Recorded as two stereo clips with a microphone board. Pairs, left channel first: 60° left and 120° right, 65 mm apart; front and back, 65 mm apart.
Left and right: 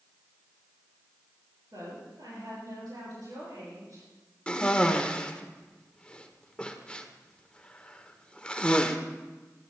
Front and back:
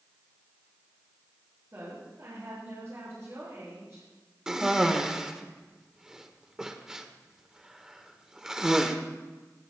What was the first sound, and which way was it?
A woman speaking, 135° right.